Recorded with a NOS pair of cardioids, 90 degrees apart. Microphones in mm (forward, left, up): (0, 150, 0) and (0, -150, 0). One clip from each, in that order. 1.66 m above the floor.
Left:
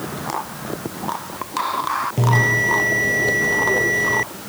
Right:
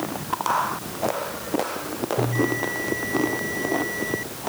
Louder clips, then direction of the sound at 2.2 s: Left 7 dB; 65° left.